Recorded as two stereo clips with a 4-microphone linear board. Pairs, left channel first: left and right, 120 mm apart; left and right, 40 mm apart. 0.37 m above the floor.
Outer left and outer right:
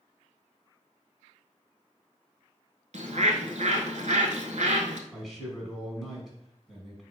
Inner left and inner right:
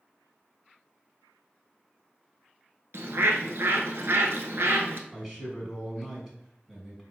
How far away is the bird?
About 0.8 m.